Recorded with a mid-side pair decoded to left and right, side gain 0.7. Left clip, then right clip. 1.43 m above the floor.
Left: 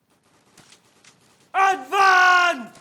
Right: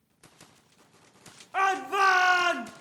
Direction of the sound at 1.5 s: 30° left.